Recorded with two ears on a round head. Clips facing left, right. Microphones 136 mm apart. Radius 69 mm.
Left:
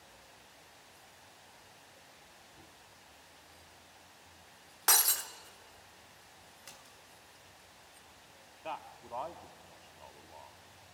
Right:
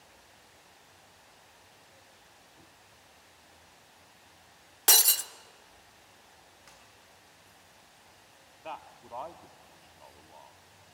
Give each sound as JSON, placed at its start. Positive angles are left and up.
{"t": 4.9, "sound": "breaking glass", "side_deg": -30, "distance_m": 0.8}
{"t": 6.7, "sound": "a splash", "side_deg": 30, "distance_m": 3.0}
{"t": 8.6, "sound": "a man speaking", "side_deg": 0, "distance_m": 0.9}